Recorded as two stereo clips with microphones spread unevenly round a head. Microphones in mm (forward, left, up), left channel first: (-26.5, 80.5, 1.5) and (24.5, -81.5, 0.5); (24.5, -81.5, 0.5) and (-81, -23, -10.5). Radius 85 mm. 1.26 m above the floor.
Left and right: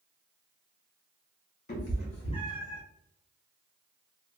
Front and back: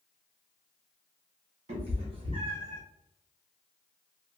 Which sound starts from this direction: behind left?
A cat meowing, at 1.7 s.